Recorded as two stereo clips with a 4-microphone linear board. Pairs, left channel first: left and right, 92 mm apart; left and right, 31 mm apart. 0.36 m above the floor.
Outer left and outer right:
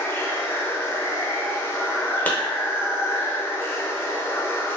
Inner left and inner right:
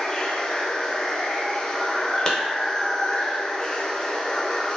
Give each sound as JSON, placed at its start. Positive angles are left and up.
{"t": 0.0, "sound": "running water", "side_deg": 25, "distance_m": 0.7}
{"t": 2.3, "sound": "a clap", "side_deg": 20, "distance_m": 0.8}